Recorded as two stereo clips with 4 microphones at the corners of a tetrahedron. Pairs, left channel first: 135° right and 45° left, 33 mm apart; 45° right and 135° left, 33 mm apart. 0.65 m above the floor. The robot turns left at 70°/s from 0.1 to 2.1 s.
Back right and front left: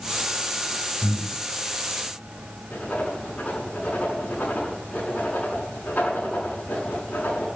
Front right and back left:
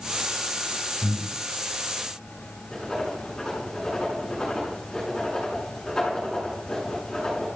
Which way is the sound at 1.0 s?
175° right.